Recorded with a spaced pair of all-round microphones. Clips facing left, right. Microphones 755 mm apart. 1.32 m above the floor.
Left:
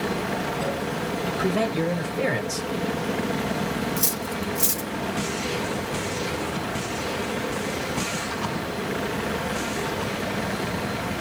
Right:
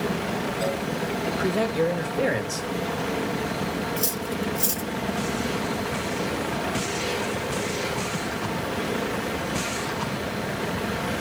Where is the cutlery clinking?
55° left (ahead or behind), 0.8 m.